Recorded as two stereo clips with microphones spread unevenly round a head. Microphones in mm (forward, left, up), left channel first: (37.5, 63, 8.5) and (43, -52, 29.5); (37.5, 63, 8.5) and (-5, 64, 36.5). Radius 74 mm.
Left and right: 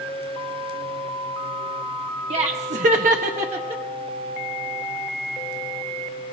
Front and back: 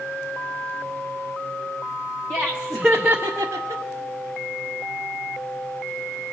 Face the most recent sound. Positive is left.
turn(degrees=-150)